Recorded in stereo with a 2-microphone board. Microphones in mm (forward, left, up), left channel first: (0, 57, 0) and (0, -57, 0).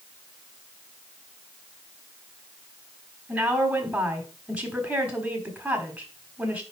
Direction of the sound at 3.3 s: 10° right (ahead or behind).